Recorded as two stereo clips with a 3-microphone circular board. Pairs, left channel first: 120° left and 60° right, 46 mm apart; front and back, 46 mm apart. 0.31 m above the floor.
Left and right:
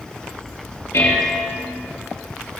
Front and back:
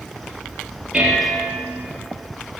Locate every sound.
0.9 s dishes clattering: 105° left, 4.5 m